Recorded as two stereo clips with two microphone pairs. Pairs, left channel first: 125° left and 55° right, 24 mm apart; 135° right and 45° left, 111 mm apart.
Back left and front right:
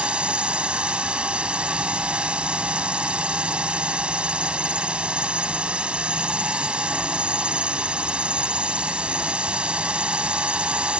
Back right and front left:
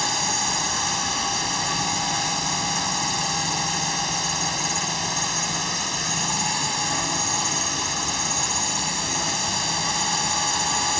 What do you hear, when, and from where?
0.0 s a drone: 45° right